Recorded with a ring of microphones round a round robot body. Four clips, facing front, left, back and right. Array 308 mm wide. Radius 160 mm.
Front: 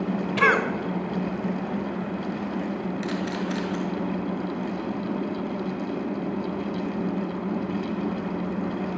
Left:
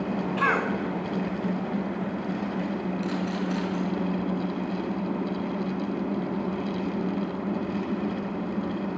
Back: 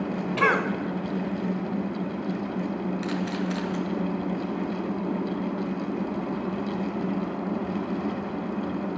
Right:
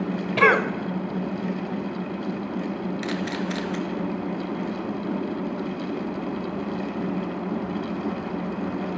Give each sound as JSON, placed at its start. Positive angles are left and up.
{"t": 0.4, "sound": "a cough", "azimuth_deg": -85, "distance_m": 3.0}
{"t": 3.0, "sound": "a camera shutter", "azimuth_deg": -90, "distance_m": 4.5}